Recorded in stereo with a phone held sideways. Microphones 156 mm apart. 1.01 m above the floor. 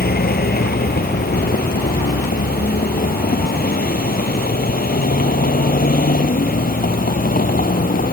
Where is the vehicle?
80° left; by 8.1 s 65° left (ahead or behind).